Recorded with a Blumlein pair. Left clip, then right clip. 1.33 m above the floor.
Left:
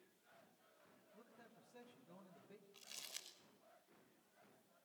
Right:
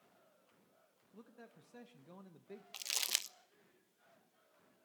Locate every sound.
1.1 s a man speaking: 30° right, 1.5 m
2.7 s crumpling: 50° right, 0.8 m